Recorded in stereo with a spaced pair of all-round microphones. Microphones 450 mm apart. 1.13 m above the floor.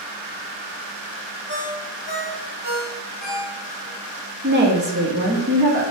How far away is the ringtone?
About 2.0 m.